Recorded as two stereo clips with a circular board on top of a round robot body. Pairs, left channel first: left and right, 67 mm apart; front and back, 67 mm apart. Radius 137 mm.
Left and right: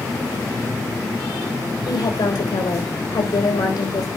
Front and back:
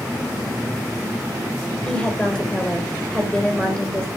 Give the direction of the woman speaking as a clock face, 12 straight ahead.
9 o'clock.